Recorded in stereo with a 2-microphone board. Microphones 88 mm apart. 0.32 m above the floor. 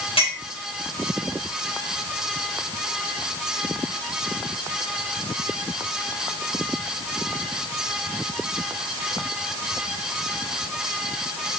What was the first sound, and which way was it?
A clink, 85° left.